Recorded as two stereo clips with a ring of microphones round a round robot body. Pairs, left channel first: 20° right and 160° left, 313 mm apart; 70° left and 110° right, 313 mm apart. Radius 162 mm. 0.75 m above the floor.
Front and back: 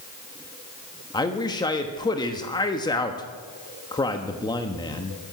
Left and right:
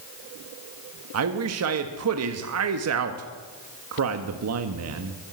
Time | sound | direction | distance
1.1 | a man speaking | 95° right | 1.2 m